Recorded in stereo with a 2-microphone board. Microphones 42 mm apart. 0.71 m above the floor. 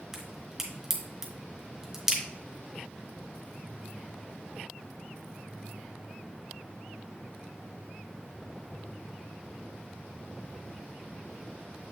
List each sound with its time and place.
0.1 s a crack: 10° right (ahead or behind), 2 m